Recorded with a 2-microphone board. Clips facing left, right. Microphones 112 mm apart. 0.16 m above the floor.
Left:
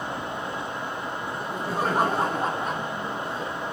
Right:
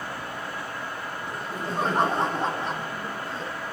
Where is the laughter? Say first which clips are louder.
Even; 5° left (ahead or behind), 7 m.